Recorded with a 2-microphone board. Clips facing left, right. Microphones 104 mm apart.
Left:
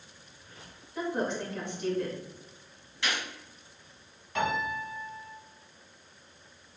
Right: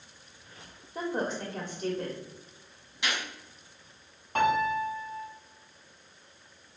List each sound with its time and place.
0.9 s a woman speaking: 45° right (ahead or behind), 1.3 m
3.0 s a gunshot: 20° right (ahead or behind), 1.9 m
4.3 s a piano: 45° right (ahead or behind), 1.3 m